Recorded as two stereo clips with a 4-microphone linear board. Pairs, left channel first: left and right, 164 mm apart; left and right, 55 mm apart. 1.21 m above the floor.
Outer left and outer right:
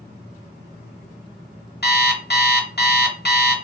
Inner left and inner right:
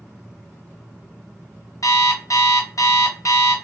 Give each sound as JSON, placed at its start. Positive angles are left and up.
{"t": 1.8, "sound": "an alarm clock", "side_deg": 70, "distance_m": 0.9}